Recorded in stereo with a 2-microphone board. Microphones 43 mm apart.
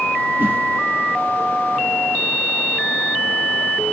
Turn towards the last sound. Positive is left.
turn(degrees=-60)  # may be behind; listen again after turning